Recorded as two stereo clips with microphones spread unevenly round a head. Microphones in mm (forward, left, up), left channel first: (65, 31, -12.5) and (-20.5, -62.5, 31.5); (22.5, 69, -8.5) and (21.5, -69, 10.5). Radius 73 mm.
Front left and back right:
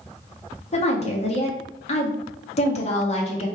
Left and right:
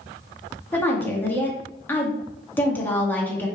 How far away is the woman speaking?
About 1.5 m.